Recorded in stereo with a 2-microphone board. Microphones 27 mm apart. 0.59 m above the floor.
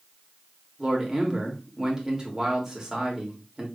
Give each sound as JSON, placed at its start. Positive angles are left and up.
{"t": 0.8, "sound": "a man speaking", "side_deg": -25, "distance_m": 1.8}